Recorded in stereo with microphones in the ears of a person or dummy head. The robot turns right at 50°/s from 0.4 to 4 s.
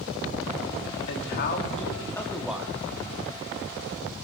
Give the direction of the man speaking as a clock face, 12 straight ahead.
8 o'clock.